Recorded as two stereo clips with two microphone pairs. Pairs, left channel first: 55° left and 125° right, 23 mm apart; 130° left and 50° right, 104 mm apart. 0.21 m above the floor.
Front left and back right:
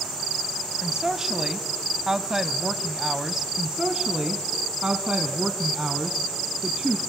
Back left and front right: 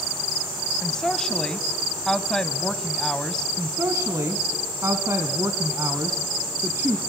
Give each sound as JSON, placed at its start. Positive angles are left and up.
{"t": 0.8, "sound": "a woman speaking", "azimuth_deg": -155, "distance_m": 1.2}
{"t": 3.6, "sound": "a woman speaking", "azimuth_deg": -100, "distance_m": 1.5}